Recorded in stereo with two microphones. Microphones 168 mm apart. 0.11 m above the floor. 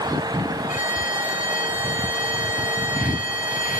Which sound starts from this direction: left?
A violin, at 0.7 s.